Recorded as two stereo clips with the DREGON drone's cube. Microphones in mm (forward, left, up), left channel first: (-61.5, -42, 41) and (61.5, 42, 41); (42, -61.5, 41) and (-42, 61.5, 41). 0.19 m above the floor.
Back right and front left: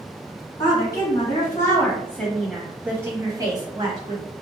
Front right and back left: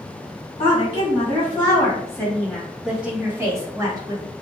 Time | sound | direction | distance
0.6 | a woman speaking | 95° right | 1.6 m